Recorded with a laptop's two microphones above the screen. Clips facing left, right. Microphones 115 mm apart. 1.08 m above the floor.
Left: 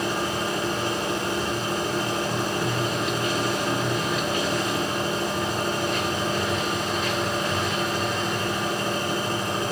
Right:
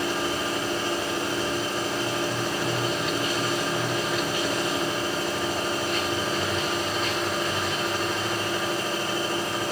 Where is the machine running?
45° left (ahead or behind), 6 m.